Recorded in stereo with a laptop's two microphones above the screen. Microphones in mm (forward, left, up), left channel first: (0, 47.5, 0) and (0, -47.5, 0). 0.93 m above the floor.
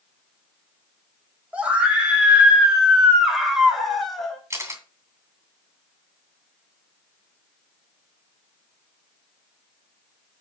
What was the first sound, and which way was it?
A scream, 15° right (ahead or behind).